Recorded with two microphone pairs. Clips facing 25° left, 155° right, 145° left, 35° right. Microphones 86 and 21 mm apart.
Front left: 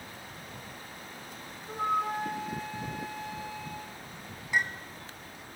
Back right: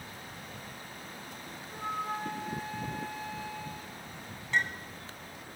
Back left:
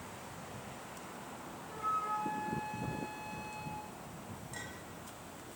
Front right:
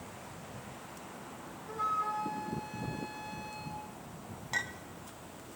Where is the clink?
55° right, 2.5 m.